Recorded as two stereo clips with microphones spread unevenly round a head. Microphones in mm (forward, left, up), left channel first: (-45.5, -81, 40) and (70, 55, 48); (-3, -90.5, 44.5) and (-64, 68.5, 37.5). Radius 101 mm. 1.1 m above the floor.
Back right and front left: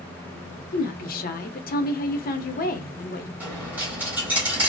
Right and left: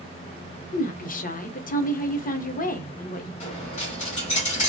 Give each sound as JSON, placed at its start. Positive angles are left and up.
{"t": 0.7, "sound": "a woman speaking", "azimuth_deg": -105, "distance_m": 0.7}
{"t": 3.4, "sound": "a dropped coin", "azimuth_deg": -25, "distance_m": 1.1}